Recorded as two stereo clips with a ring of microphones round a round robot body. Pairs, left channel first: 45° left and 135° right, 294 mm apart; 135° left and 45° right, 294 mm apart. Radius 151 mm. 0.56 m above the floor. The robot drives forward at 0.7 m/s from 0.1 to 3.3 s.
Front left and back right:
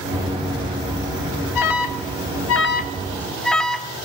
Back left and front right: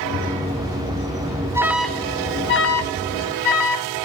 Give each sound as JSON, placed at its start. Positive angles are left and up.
{"t": 1.6, "sound": "an alarm", "azimuth_deg": 35, "distance_m": 0.9}